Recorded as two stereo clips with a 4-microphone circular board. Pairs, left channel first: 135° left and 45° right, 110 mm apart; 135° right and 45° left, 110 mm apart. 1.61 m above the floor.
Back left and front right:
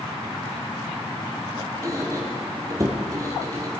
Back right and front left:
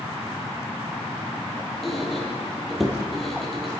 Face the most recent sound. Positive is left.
turn(degrees=-45)